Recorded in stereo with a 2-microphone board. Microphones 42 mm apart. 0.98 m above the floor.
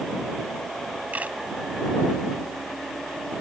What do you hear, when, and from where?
1.1 s a camera shutter: 35° right (ahead or behind)